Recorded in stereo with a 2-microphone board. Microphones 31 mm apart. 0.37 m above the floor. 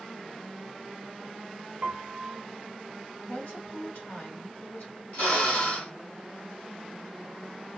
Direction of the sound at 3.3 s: 60° left (ahead or behind).